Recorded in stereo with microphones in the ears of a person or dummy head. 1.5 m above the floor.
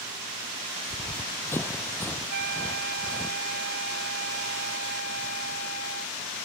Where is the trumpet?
60° right (ahead or behind).